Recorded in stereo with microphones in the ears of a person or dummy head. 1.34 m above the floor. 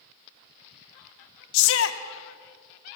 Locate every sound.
1.5 s a shout: 65° left (ahead or behind), 1.4 m